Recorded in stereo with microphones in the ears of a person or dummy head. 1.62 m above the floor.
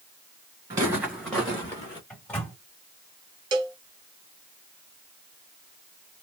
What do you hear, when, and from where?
0.7 s footsteps: 20° right (ahead or behind), 1.6 m; by 2.0 s 25° left (ahead or behind), 1.7 m
2.1 s a microwave: 10° left (ahead or behind), 2 m
3.5 s a cowbell: 25° right (ahead or behind), 0.7 m